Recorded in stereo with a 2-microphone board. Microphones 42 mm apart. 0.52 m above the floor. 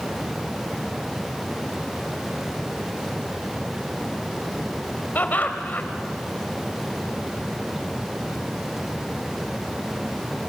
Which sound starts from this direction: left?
Laughter, at 5.2 s.